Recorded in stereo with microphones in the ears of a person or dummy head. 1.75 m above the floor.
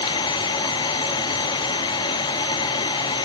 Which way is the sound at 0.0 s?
25° left (ahead or behind).